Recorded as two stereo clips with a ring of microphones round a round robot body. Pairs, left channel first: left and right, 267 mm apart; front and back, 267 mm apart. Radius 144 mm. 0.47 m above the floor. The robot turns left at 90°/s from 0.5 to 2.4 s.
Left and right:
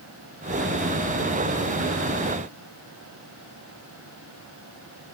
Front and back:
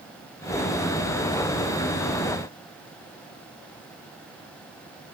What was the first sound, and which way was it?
Only background noise.